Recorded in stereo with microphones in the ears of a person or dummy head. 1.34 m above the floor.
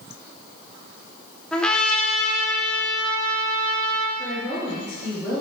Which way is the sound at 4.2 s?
10° right (ahead or behind).